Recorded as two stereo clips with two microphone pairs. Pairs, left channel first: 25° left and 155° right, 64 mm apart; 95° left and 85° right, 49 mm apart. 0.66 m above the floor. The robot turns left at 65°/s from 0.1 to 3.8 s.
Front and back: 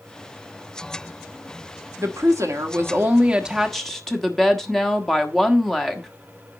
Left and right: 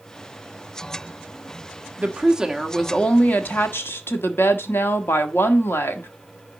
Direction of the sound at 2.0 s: 130° right.